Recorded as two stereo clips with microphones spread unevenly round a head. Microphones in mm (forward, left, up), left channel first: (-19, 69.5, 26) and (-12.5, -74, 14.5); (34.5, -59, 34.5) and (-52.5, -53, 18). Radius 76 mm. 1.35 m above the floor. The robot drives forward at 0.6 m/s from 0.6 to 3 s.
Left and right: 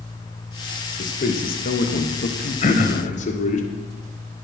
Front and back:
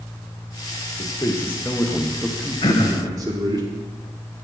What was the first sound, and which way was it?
A man speaking, 55° left.